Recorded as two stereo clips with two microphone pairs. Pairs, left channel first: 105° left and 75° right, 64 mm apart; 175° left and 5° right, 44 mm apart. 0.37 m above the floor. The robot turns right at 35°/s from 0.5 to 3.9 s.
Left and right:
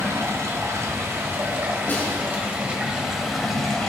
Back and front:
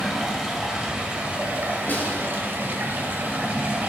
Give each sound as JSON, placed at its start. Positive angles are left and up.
{"t": 0.0, "sound": "running water", "azimuth_deg": -90, "distance_m": 1.7}
{"t": 1.9, "sound": "a snare drum", "azimuth_deg": 155, "distance_m": 1.6}